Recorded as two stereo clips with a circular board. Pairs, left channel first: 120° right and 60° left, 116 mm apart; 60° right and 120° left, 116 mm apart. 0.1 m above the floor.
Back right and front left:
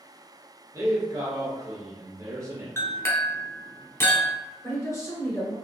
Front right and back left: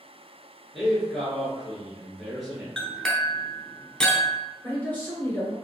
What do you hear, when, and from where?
0.7 s a man speaking: 30° left, 1.6 m
2.8 s a clink: 135° right, 0.8 m
4.6 s a man speaking: 110° right, 1.4 m